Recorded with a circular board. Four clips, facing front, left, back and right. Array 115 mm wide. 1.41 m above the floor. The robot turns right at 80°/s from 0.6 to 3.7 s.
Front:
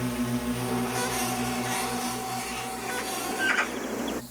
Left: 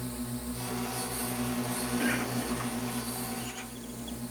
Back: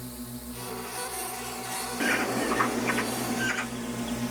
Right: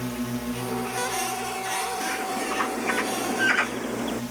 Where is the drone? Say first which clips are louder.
Right 7 dB, front 11 dB; 40° right; by 4.3 s 150° right.